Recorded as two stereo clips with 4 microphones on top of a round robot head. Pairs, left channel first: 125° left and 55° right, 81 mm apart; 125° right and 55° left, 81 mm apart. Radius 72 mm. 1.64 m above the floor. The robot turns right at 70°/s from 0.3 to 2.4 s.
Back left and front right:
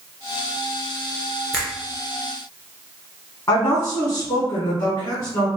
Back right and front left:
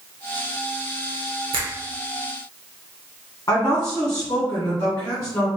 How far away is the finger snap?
About 1.1 m.